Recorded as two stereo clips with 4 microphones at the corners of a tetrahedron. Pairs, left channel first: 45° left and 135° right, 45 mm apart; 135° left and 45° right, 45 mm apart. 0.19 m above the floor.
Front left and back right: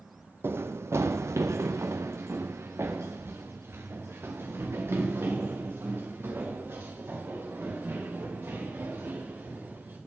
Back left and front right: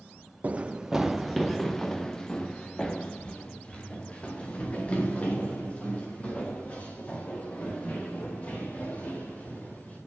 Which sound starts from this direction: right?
Running footsteps, at 0.4 s.